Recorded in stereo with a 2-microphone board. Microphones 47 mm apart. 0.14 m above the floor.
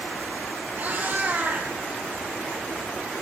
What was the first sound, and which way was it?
A cat meowing, 40° right (ahead or behind).